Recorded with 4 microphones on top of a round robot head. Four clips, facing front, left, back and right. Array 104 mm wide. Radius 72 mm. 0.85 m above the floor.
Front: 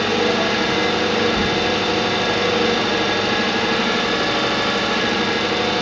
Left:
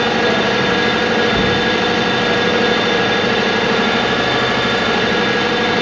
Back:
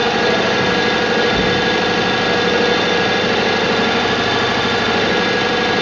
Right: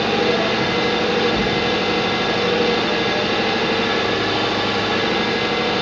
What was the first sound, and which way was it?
An engine running, 120° left.